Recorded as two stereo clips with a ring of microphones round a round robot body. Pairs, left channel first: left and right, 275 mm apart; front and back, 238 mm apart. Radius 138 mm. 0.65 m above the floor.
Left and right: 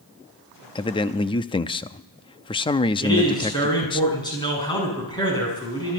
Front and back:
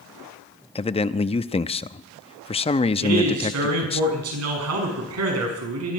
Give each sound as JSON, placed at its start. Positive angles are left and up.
{"t": 0.8, "sound": "a man speaking", "azimuth_deg": 35, "distance_m": 0.5}
{"t": 3.0, "sound": "a man speaking", "azimuth_deg": 165, "distance_m": 6.5}